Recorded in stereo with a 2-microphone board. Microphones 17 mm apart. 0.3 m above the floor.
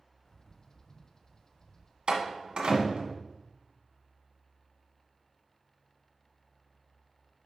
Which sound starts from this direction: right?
A door slam, at 2.1 s.